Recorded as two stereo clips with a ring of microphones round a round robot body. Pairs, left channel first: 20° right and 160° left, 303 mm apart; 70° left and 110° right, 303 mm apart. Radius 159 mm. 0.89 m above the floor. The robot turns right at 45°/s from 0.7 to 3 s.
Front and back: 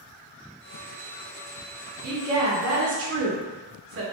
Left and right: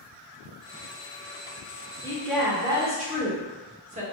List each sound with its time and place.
2.0 s a woman speaking: 145° left, 0.8 m; by 4.0 s 175° right, 0.8 m